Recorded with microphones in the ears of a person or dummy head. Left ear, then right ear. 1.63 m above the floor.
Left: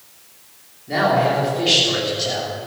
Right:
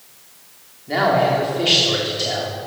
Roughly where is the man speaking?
Centre.